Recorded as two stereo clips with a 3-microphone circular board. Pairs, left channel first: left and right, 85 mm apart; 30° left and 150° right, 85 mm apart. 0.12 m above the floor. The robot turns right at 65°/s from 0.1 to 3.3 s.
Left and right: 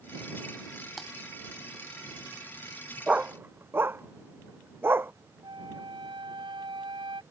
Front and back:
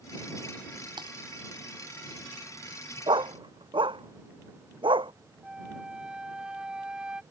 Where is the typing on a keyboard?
Straight behind; by 1.1 s 170° right.